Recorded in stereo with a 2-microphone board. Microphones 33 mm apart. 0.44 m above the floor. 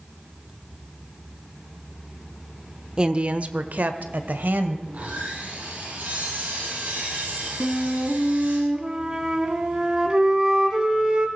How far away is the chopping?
I don't hear chopping.